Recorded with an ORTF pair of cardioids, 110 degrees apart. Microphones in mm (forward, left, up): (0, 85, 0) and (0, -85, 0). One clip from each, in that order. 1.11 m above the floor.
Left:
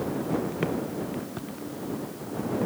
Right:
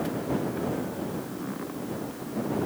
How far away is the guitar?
No guitar in this recording.